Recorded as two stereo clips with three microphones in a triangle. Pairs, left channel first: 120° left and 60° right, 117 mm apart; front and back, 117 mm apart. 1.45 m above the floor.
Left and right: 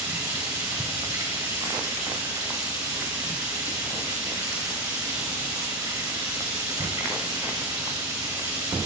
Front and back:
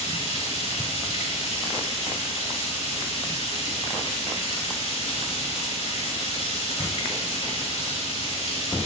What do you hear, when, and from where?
0.0 s running water: 5° right, 3.5 m